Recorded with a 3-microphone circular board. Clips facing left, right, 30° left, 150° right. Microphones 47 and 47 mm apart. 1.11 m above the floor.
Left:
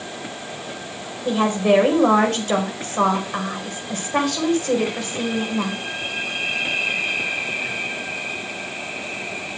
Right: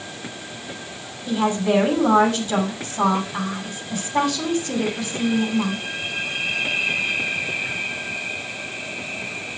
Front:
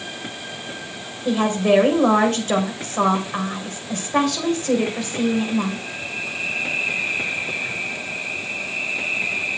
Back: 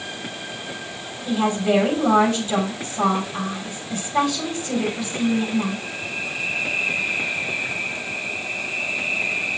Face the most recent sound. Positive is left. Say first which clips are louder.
# left 3 dB, front 3 dB
turn(degrees=65)